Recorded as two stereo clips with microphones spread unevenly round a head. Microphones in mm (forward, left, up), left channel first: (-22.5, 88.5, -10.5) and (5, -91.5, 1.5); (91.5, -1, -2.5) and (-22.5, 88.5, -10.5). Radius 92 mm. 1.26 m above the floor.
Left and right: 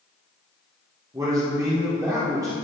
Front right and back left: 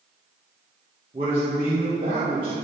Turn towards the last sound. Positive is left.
turn(degrees=-155)